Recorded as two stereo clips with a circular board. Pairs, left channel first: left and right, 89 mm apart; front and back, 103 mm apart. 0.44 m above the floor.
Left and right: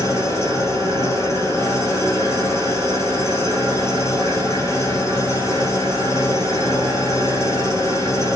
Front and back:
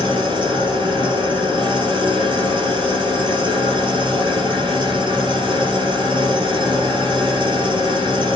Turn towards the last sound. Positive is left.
turn(degrees=145)